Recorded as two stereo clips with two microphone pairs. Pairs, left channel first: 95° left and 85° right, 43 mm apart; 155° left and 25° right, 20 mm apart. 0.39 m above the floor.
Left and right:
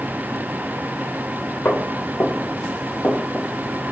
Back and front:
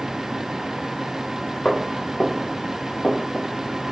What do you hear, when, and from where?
1.6 s footsteps: 125° left, 2 m; by 3.5 s 155° left, 1.9 m